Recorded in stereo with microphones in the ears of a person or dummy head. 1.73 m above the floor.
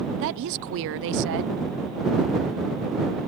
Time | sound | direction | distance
0.2 | a woman speaking | 60° right (ahead or behind) | ?